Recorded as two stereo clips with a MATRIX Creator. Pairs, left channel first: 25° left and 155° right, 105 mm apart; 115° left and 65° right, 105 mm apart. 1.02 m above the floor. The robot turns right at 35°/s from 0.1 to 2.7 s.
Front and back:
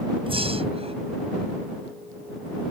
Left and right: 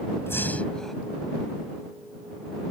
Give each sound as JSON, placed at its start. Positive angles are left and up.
{"t": 0.3, "sound": "breathing", "azimuth_deg": 180}